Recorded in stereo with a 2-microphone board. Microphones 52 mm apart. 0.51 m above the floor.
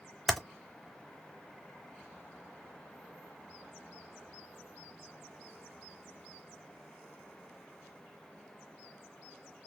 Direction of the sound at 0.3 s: 5° left (ahead or behind).